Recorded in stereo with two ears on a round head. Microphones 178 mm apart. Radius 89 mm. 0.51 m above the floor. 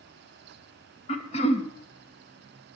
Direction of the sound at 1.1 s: 30° left (ahead or behind).